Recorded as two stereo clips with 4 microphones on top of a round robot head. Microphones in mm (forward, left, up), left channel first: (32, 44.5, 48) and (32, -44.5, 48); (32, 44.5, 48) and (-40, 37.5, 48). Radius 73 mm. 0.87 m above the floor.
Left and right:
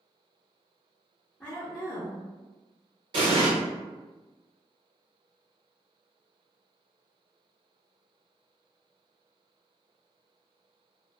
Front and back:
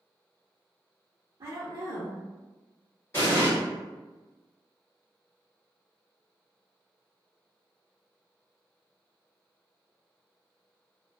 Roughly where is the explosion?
Ahead right.